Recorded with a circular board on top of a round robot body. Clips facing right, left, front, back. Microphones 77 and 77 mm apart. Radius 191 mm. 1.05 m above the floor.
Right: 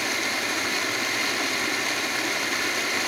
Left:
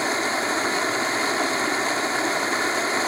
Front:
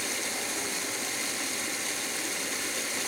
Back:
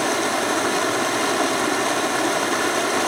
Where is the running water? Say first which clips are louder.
Left 4 dB, back 14 dB; 150° left.